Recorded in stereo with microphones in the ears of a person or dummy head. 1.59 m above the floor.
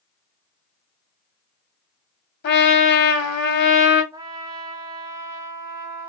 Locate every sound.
2.4 s a trumpet: 50° left (ahead or behind), 1.1 m
4.1 s a trumpet: 15° right (ahead or behind), 0.5 m